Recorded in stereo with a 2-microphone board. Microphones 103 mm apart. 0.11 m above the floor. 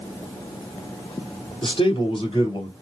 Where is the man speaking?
50° left (ahead or behind), 2.5 m; by 2.7 s 55° left (ahead or behind), 2.5 m.